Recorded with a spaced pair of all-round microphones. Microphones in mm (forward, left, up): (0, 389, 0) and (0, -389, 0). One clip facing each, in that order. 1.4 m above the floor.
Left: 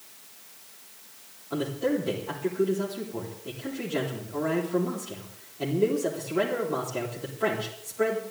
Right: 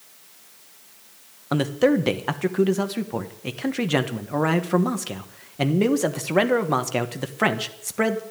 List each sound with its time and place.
1.5 s a man speaking: 85° right, 1.4 m